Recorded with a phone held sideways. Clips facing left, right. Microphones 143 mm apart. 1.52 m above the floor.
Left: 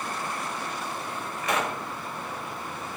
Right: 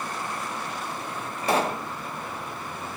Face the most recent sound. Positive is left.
turn(degrees=-30)  # may be behind; listen again after turning